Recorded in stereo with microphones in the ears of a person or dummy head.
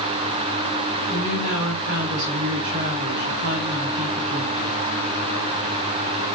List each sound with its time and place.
1.1 s a woman speaking: 70° right (ahead or behind), 4.5 m